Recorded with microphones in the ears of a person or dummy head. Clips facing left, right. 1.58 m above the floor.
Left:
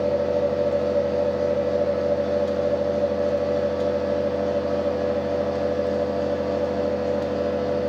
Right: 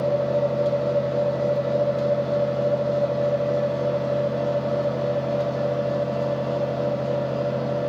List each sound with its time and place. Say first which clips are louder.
0.0 s a fan: even; 5° left (ahead or behind), 1.5 m